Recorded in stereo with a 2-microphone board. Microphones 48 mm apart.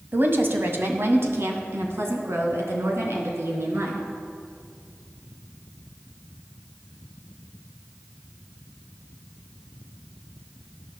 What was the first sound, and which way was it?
A woman speaking, 45° right (ahead or behind).